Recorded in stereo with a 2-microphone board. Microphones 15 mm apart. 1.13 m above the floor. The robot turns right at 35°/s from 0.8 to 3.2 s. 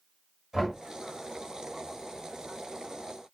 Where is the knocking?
30° right (ahead or behind), 1.2 m.